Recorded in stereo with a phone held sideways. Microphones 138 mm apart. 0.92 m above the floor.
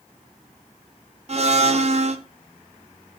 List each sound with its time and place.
1.3 s a blender: 50° right (ahead or behind), 0.6 m